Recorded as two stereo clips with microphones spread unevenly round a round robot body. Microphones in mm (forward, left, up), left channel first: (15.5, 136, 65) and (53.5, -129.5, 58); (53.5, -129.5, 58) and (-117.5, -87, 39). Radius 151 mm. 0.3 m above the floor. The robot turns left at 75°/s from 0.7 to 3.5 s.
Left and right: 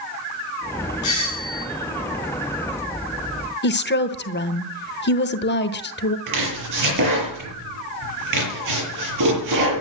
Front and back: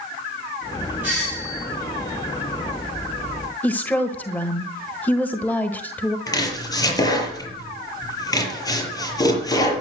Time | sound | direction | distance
1.0 | a doorbell | 85° left | 6 m
3.6 | a woman speaking | 70° left | 1.3 m
6.3 | chopping | 85° right | 7 m